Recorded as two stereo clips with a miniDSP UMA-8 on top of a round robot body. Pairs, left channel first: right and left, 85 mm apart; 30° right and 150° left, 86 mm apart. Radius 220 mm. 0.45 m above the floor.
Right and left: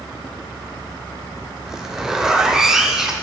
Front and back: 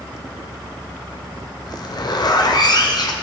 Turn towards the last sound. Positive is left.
turn(degrees=5)